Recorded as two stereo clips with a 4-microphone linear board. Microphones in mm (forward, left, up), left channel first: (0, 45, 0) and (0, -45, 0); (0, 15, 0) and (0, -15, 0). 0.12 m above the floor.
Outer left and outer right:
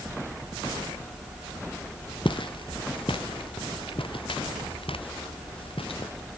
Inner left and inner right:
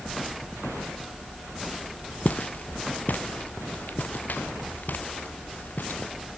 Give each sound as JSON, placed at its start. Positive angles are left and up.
{"t": 2.2, "sound": "footsteps", "side_deg": 65}